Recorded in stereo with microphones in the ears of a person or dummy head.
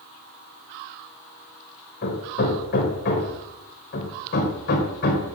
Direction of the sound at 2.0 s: 55° left (ahead or behind).